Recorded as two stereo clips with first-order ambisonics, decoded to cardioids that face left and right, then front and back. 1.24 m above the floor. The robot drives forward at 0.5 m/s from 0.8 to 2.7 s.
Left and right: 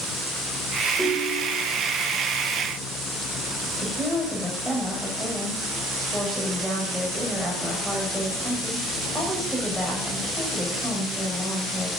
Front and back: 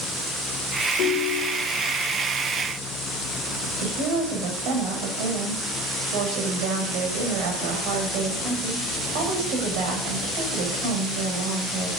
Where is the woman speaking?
175° left, 5.5 m.